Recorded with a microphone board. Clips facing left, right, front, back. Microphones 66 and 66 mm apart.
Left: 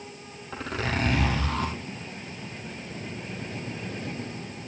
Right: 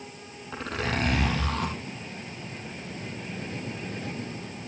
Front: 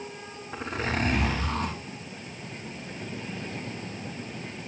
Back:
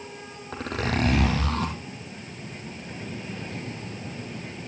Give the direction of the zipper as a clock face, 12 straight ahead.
6 o'clock.